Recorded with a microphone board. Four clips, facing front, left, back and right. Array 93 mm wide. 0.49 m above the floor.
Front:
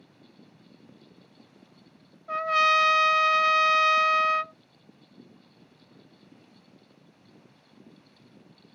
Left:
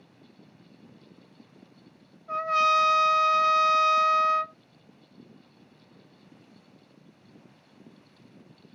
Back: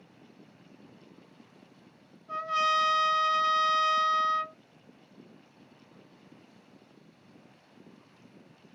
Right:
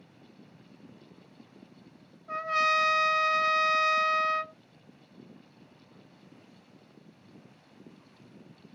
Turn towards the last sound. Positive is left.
turn(degrees=5)